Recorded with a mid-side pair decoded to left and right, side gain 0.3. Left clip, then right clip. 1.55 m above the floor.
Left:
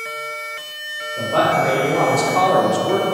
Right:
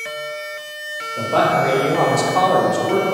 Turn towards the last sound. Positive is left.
turn(degrees=30)